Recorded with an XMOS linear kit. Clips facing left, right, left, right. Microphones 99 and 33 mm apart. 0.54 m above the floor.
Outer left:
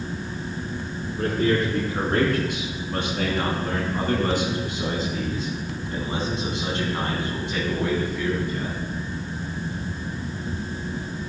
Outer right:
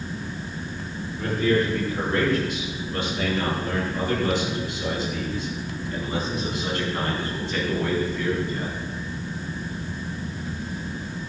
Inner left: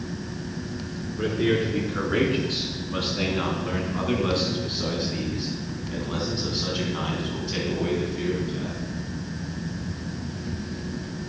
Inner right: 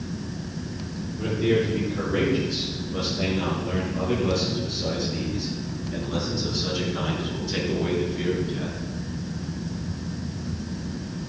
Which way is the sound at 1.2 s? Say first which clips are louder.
Even, even; 75° left (ahead or behind).